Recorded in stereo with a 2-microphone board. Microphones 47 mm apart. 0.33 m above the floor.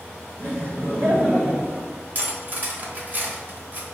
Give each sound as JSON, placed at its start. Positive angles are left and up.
{"t": 0.4, "sound": "laughter", "side_deg": -40, "distance_m": 1.8}
{"t": 2.1, "sound": "cutlery clinking", "side_deg": -40, "distance_m": 0.7}